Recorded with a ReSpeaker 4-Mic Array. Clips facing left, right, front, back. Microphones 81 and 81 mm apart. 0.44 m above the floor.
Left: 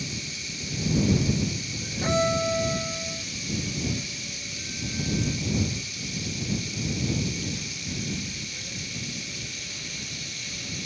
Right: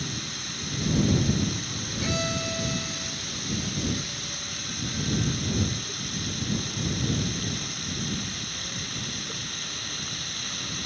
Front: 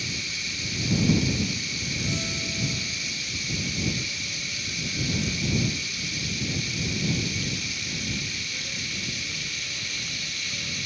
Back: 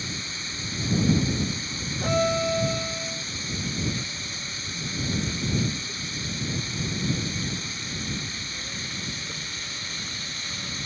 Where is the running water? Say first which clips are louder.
Right 1 dB, even; 125° right.